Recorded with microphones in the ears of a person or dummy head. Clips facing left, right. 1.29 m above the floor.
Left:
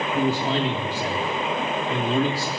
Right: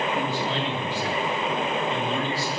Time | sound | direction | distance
0.1 | a man speaking | 65° left (ahead or behind) | 3.5 m